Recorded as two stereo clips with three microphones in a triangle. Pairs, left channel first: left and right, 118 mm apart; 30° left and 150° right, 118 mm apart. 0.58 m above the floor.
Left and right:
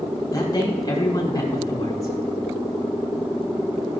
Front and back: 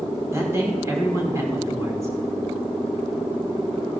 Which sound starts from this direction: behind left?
A man speaking, at 0.3 s.